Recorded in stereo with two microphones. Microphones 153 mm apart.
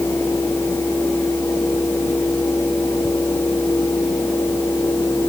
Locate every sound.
Only background noise.